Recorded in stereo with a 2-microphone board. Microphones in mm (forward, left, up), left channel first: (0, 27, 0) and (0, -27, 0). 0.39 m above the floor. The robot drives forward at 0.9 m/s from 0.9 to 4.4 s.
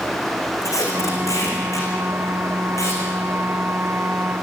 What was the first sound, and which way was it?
Tape being pulled, 85° left.